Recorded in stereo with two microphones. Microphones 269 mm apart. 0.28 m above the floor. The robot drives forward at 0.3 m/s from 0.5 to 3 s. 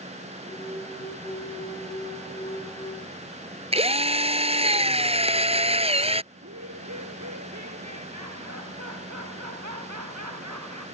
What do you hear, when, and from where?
3.7 s a drill: 20° right (ahead or behind)
6.3 s laughter: 85° right